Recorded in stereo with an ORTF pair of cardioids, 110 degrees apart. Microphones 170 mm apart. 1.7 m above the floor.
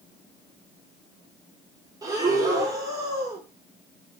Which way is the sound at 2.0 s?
20° right.